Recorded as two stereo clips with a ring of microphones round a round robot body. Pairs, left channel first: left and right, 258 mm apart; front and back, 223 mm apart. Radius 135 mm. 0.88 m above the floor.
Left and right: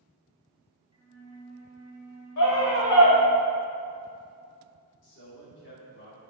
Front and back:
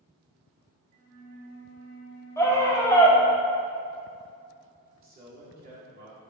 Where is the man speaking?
135° left, 2.5 m.